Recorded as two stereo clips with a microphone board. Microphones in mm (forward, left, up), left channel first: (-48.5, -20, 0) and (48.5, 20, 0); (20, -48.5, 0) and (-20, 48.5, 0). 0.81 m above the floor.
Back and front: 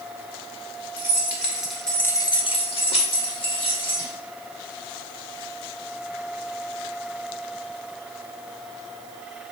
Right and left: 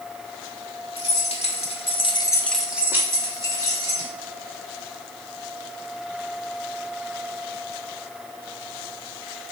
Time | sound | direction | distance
1.0 | keys jangling | 50° right | 1.7 m